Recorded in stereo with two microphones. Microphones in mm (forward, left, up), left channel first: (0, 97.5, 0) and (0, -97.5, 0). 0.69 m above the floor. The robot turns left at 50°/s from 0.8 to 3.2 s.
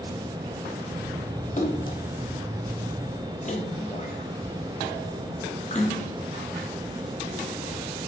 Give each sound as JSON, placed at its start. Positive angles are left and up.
{"t": 1.6, "sound": "a splash", "side_deg": 40, "distance_m": 1.4}